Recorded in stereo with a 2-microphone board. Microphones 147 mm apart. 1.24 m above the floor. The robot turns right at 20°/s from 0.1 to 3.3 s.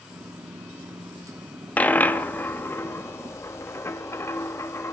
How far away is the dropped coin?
About 0.6 m.